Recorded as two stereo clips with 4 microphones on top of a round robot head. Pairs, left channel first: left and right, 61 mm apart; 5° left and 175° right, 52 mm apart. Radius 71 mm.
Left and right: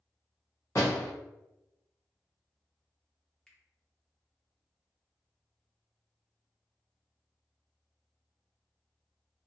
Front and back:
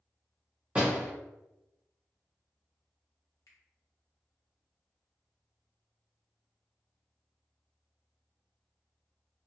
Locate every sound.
0.8 s a door slam: 135° left, 0.7 m
3.5 s a finger snap: 10° left, 0.5 m